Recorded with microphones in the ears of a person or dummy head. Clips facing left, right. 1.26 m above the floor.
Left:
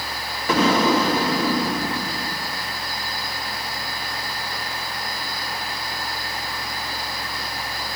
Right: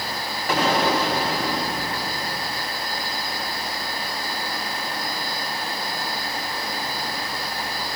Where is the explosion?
70° left (ahead or behind), 1.4 m.